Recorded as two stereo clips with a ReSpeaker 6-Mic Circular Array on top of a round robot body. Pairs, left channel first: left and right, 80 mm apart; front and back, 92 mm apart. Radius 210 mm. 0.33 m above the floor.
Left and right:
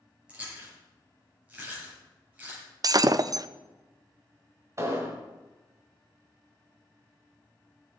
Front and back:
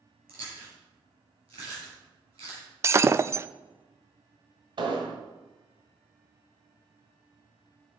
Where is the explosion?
145° right, 1.7 m.